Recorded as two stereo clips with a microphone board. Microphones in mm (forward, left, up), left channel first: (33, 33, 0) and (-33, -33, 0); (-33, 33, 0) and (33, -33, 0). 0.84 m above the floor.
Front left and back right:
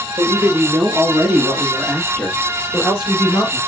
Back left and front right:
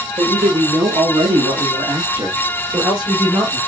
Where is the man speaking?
70° right, 1.4 m; by 3.6 s 10° right, 2.5 m.